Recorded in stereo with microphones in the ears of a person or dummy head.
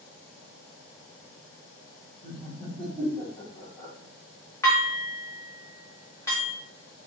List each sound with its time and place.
2.2 s laughter: 10° left (ahead or behind), 1.7 m
4.6 s dishes clattering: 15° left (ahead or behind), 1.7 m